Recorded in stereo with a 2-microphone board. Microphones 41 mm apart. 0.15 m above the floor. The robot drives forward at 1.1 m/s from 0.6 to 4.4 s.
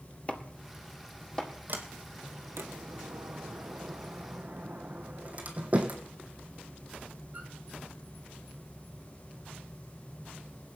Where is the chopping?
30° left (ahead or behind), 1.5 m; by 1.5 s 20° left (ahead or behind), 2.5 m.